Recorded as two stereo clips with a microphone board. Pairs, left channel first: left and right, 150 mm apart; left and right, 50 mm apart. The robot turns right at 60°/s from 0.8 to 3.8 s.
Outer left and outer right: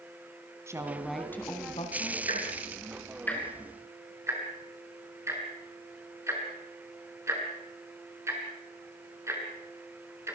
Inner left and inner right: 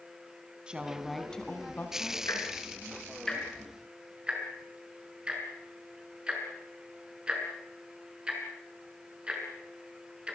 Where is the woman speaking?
20° right, 3.5 m; by 2.2 s 65° left, 3.5 m.